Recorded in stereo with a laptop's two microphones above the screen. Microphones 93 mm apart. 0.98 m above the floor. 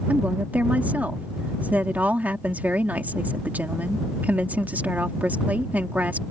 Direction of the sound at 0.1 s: 15° right (ahead or behind).